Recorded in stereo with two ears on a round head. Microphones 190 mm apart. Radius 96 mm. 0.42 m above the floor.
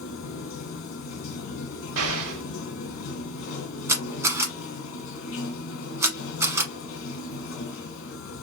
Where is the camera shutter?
15° right (ahead or behind), 1.0 m.